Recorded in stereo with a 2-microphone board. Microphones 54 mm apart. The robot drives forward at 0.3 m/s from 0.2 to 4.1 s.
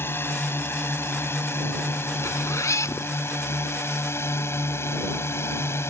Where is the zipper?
80° left; by 3.1 s 85° left.